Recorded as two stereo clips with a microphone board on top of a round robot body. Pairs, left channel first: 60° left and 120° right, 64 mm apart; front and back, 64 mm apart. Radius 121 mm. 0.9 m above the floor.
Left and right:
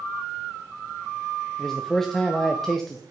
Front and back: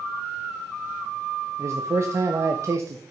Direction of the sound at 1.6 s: 145° left.